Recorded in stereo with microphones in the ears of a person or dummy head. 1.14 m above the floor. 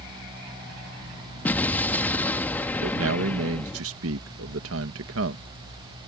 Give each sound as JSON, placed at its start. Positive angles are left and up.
{"t": 1.4, "sound": "an explosion", "side_deg": 10}
{"t": 2.8, "sound": "a man speaking", "side_deg": -70}